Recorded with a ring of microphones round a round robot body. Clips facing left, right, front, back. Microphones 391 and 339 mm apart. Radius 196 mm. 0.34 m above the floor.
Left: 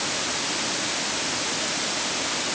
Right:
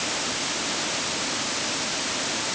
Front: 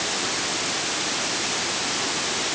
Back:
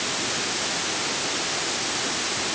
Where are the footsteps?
No footsteps in this recording.